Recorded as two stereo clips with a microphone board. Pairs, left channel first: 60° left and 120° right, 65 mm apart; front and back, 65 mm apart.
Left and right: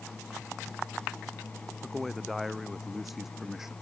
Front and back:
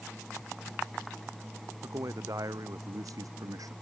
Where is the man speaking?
145° left; by 3.7 s 155° left.